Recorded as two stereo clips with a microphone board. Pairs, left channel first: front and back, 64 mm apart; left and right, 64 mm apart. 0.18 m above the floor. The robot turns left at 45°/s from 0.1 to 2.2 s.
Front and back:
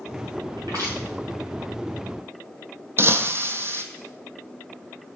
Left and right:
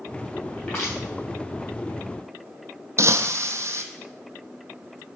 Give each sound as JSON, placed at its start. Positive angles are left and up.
{"t": 0.6, "sound": "crushing", "azimuth_deg": 175, "distance_m": 3.0}
{"t": 3.0, "sound": "breaking glass", "azimuth_deg": -130, "distance_m": 0.6}